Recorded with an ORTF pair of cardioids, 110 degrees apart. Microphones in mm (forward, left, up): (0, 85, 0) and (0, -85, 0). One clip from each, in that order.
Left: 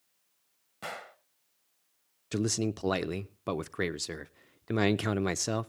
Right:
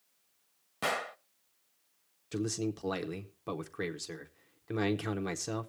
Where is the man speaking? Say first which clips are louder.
Left 3 dB; 30° left, 0.5 m.